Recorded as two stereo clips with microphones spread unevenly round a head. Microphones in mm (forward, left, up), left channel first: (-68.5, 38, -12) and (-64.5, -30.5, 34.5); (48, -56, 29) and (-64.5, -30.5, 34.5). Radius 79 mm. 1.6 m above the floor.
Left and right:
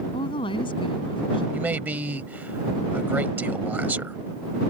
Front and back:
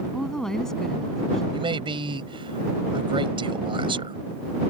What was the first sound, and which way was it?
A woman speaking, 75° left.